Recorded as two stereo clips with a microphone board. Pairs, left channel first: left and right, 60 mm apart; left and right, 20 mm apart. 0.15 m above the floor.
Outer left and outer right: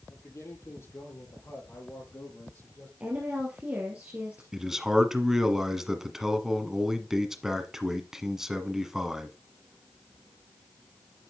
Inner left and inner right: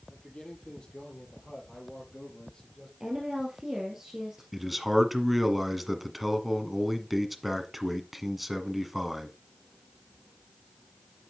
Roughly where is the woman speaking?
Right.